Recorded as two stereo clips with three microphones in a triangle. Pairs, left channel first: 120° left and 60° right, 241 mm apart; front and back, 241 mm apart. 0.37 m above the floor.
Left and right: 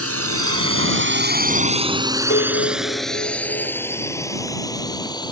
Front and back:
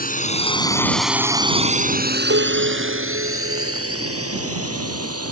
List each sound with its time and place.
0.0 s a drone: 50° right; by 5.3 s 170° right
2.3 s a piano: 155° left